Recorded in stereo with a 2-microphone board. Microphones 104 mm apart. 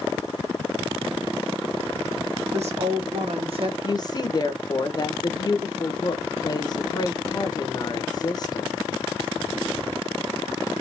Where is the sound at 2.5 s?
80° right, 1.5 m; by 3.8 s 50° right (ahead or behind), 1.1 m.